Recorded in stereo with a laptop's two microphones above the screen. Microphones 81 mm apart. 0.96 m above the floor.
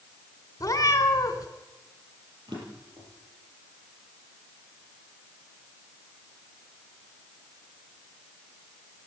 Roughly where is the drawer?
Right.